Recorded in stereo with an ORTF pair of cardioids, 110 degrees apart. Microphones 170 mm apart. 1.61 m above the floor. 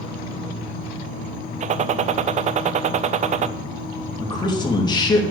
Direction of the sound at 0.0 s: 55° left.